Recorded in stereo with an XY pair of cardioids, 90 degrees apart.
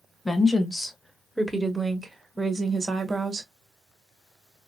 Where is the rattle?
No rattle in this recording.